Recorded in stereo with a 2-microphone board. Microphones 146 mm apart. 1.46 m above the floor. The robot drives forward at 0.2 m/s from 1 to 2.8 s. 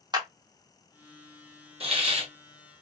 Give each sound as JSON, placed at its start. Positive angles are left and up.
{"t": 0.1, "sound": "a clap", "side_deg": -30, "distance_m": 0.9}
{"t": 1.8, "sound": "a hiss", "side_deg": -40, "distance_m": 0.7}